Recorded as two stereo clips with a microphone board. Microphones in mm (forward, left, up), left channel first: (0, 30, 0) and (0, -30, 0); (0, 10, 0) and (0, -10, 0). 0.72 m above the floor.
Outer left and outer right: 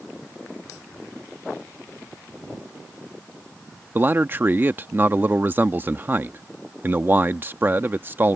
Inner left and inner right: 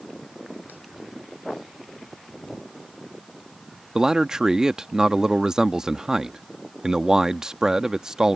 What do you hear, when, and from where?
4.0 s a man speaking: 35° right (ahead or behind)